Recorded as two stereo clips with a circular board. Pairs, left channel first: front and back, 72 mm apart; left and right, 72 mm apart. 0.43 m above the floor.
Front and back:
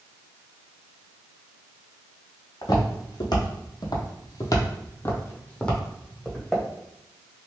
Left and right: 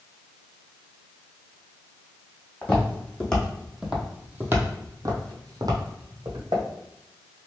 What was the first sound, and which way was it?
Footsteps, 25° left.